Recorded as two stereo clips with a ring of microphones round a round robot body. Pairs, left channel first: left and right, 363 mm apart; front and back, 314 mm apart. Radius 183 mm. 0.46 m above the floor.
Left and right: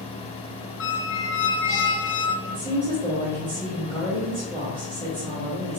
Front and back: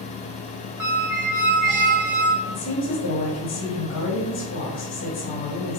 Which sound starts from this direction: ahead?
A woman speaking, at 2.5 s.